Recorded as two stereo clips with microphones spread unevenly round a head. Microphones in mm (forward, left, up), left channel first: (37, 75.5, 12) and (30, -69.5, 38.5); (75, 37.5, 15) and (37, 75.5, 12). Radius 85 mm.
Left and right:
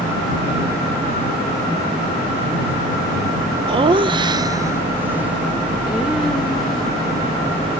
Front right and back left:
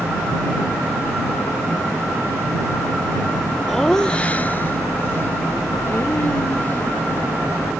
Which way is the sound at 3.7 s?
135° right.